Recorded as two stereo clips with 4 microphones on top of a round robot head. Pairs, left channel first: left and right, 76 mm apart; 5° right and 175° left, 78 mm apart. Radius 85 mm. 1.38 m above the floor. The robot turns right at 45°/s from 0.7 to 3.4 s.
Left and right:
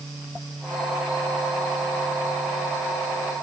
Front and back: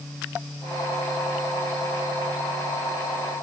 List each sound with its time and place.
Only background noise.